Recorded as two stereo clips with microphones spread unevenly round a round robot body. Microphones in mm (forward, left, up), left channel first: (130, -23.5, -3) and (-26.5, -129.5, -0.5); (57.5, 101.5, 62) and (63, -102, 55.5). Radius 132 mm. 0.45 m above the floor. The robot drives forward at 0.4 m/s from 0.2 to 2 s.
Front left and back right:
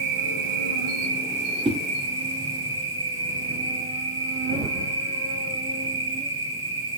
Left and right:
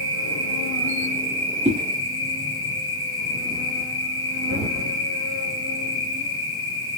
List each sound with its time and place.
0.0 s an insect: 115° right, 1.2 m; by 7.0 s 140° right, 1.7 m
1.6 s a whoosh: 100° right, 0.7 m; by 1.8 s 110° right, 0.7 m